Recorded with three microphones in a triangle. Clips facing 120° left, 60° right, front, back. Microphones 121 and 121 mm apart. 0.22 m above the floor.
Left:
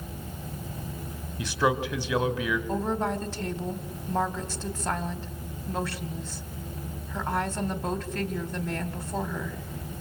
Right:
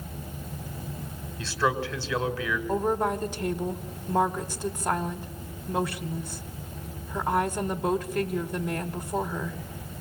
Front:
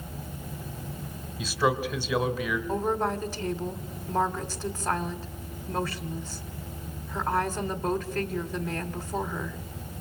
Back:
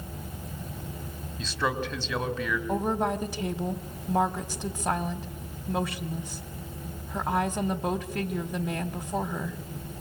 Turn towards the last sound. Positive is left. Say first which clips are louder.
# right 7 dB, back 1 dB
turn(degrees=-120)